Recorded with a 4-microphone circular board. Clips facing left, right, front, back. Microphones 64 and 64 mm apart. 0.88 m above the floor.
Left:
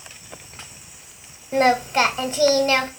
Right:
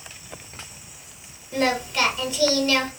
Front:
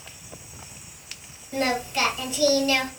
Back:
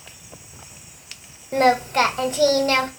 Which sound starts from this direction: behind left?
Singing, at 1.5 s.